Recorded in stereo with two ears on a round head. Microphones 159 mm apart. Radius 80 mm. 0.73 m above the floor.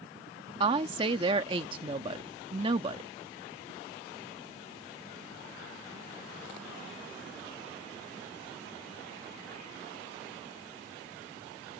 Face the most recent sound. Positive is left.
turn(degrees=-30)  # may be behind; listen again after turning